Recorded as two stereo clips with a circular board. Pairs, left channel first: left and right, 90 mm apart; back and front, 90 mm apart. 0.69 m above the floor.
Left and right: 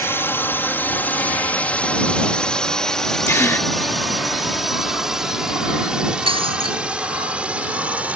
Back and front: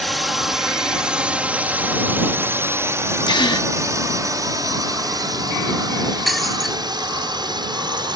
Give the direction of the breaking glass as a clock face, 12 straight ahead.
3 o'clock.